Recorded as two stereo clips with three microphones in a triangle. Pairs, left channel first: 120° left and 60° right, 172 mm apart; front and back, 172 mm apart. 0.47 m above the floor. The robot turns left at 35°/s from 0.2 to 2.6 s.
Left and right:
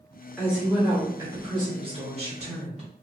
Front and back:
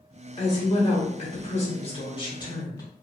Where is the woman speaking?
25° left, 1.1 m; by 2.8 s 55° right, 1.1 m.